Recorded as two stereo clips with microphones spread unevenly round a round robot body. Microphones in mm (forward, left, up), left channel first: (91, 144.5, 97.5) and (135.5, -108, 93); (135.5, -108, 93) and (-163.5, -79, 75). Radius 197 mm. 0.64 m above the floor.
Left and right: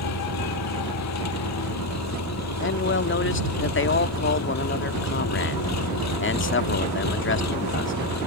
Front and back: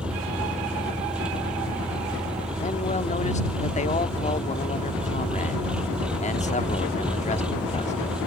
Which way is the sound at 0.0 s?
85° left.